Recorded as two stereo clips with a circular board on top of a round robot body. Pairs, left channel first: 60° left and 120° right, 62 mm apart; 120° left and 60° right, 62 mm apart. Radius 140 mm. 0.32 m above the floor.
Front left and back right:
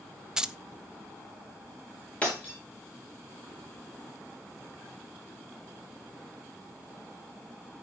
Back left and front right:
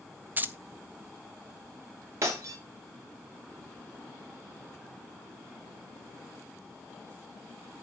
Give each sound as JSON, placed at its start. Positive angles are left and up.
{"t": 0.4, "sound": "keys jangling", "azimuth_deg": -55, "distance_m": 1.0}
{"t": 2.2, "sound": "breaking glass", "azimuth_deg": -10, "distance_m": 3.0}